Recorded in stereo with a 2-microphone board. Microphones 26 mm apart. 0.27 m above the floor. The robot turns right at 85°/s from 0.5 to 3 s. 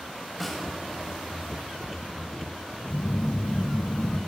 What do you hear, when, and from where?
0.4 s a snare drum: 5° left (ahead or behind), 1.3 m; by 0.7 s 5° right (ahead or behind), 1.3 m
2.9 s a phone buzzing: 55° left (ahead or behind), 0.9 m; by 4.2 s 60° left (ahead or behind), 0.9 m